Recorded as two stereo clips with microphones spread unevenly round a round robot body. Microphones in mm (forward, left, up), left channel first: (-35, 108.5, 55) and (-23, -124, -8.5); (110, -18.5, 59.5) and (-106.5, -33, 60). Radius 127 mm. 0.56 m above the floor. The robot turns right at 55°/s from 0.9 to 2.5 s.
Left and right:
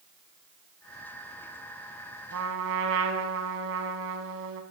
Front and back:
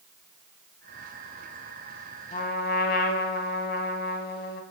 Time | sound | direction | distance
2.3 | a trumpet | 50° right | 0.9 m